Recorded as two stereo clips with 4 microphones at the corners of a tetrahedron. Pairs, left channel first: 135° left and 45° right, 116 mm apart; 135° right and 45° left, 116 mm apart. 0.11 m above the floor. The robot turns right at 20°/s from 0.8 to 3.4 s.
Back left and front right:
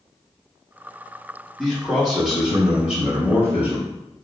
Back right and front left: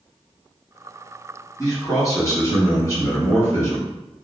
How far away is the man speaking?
About 1.4 m.